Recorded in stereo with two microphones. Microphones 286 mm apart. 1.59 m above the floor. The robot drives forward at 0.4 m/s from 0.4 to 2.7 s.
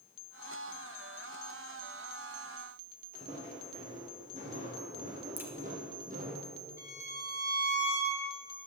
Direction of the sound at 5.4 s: 5° right (ahead or behind).